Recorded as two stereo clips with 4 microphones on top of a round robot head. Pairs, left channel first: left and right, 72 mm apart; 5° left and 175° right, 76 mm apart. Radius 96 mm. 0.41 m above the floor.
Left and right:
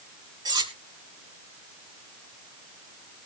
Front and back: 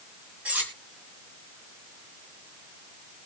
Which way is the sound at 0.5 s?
105° right.